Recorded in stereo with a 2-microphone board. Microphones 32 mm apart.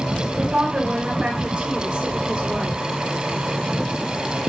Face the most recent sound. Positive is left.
turn(degrees=-35)  # may be behind; listen again after turning